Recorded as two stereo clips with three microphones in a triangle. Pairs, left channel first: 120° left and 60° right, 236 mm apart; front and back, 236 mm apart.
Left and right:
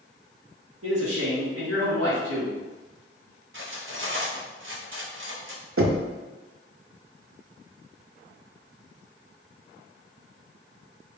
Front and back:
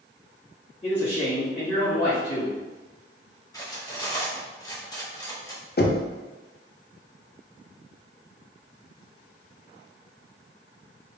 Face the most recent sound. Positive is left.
turn(degrees=-40)